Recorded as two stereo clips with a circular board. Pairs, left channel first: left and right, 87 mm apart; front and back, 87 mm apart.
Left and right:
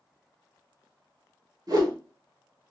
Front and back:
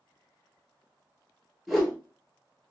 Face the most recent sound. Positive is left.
turn(degrees=-90)